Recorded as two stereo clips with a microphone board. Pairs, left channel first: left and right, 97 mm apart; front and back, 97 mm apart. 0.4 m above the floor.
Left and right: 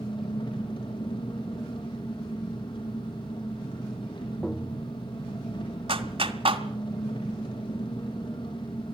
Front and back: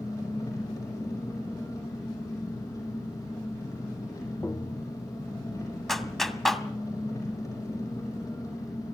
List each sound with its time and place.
0.0 s an engine running: 55° left, 5.5 m
4.4 s tapping: 10° left, 0.8 m
5.9 s a clap: 90° right, 2.0 m